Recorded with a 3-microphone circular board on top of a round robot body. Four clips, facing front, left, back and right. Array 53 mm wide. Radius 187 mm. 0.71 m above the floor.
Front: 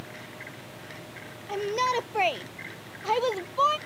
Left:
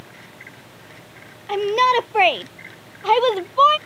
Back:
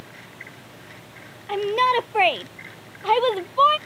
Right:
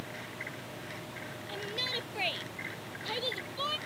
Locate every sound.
1.5 s a shout: 115° left